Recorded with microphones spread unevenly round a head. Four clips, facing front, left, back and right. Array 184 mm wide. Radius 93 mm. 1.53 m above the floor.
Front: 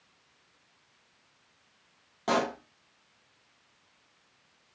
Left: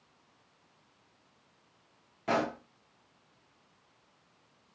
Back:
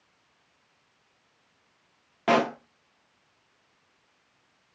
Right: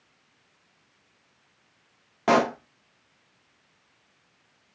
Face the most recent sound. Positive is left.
turn(degrees=-110)